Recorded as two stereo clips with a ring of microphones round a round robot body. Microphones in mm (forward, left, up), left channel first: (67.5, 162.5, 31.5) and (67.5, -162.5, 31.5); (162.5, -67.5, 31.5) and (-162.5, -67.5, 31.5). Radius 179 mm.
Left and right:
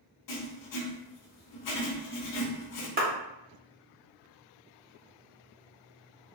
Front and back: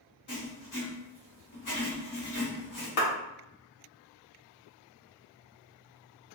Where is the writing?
60° left, 0.9 m.